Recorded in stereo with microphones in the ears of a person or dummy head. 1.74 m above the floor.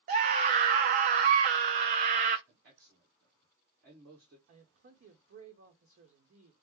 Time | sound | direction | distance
0.1 | a scream | 35° right (ahead or behind) | 0.5 m
2.5 | a man speaking | 65° right (ahead or behind) | 1.4 m
4.5 | a man speaking | 55° right (ahead or behind) | 1.0 m